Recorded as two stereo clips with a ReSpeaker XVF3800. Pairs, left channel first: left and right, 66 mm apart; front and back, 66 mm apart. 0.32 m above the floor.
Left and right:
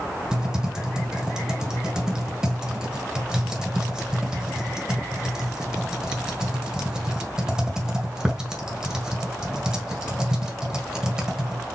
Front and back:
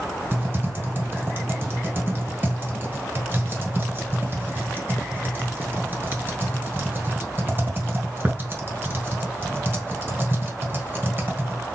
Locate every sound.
0.3 s typing on a keyboard: 165° right, 1.5 m